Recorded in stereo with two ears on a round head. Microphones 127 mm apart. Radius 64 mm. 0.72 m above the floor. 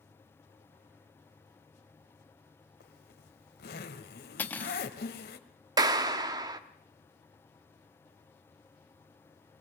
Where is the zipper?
85° left, 1.7 m.